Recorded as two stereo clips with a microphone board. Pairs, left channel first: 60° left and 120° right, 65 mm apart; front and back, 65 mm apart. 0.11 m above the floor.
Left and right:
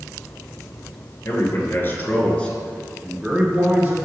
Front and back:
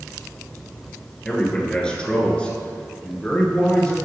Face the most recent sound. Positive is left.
turn(degrees=-70)